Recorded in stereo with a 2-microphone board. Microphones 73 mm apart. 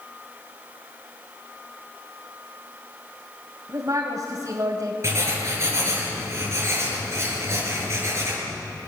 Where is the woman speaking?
45° right (ahead or behind), 3.5 m.